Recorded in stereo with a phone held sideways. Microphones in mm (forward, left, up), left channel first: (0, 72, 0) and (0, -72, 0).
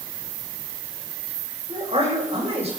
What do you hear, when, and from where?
1.7 s a man speaking: 45° right (ahead or behind), 6 m